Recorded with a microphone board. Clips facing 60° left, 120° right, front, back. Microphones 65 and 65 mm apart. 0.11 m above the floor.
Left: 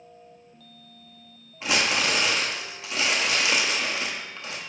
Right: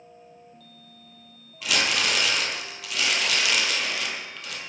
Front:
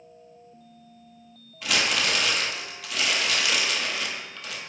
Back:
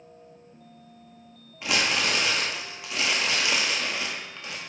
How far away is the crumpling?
About 1.1 m.